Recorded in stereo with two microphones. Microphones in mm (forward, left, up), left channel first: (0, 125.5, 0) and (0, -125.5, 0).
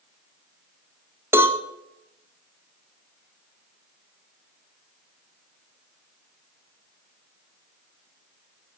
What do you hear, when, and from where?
1.3 s a cowbell: 10° right (ahead or behind), 1.6 m